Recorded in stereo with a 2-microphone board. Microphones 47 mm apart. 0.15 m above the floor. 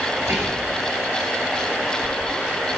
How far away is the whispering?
About 2.5 m.